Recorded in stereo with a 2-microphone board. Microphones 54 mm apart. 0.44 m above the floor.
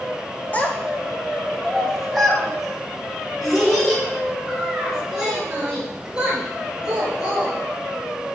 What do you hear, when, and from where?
0.5 s a child speaking: 30° left (ahead or behind), 1.1 m; by 7.5 s 15° right (ahead or behind), 5 m